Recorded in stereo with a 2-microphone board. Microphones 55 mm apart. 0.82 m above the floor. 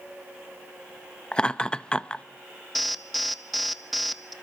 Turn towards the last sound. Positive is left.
turn(degrees=0)  # may be behind; listen again after turning